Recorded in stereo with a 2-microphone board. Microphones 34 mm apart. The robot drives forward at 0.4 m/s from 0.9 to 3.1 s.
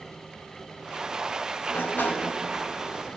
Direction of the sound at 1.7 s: 80° left.